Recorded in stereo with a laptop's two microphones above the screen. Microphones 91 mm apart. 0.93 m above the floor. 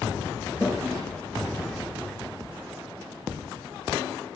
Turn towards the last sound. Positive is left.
turn(degrees=5)  # may be behind; listen again after turning